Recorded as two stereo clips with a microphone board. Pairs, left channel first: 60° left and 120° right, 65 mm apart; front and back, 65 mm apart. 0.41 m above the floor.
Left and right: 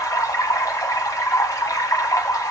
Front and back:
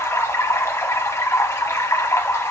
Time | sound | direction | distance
0.0 | running water | 40° left | 1.3 m